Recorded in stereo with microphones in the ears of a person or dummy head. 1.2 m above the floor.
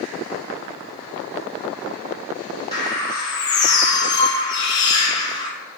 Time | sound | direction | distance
2.7 | a bird | 25° left (ahead or behind) | 0.7 m